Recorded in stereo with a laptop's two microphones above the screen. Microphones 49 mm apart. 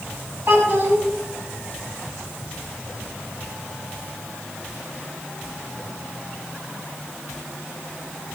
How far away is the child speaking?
About 6.5 m.